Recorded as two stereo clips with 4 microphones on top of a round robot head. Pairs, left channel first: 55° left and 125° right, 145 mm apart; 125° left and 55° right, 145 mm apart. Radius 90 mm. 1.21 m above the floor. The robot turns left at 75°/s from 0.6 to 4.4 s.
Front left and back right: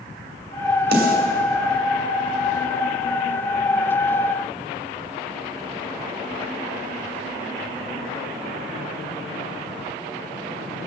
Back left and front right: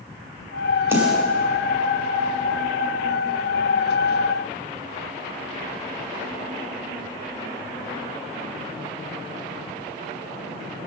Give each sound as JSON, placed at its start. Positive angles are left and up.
{"t": 0.9, "sound": "a snare drum", "azimuth_deg": -135, "distance_m": 2.5}